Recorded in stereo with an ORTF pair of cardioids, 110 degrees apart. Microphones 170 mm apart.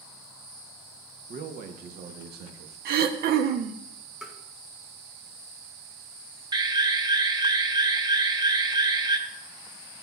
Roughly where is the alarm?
Ahead right.